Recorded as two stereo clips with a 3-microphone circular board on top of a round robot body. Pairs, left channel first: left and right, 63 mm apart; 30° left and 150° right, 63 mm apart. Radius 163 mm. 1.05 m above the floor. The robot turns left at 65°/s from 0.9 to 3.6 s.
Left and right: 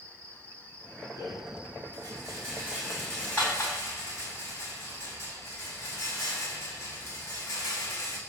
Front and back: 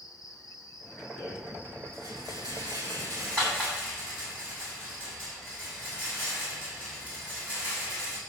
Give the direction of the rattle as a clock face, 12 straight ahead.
2 o'clock.